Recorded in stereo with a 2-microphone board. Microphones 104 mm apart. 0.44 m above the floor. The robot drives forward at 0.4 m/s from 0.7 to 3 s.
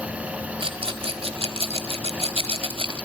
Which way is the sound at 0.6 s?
60° right (ahead or behind).